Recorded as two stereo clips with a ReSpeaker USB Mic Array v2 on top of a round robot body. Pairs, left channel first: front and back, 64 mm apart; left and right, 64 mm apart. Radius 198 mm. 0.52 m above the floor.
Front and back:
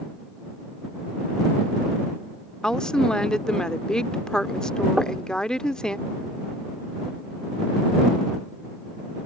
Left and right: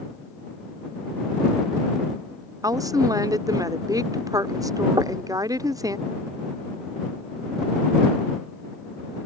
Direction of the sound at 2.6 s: 75° right.